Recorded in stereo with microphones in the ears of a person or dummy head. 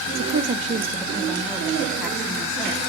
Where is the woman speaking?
50° right (ahead or behind), 0.5 m; by 2.8 s centre (ahead or behind), 1.5 m.